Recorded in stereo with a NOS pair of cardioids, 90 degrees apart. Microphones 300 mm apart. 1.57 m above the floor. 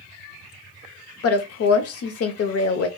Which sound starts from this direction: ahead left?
A woman speaking, at 1.2 s.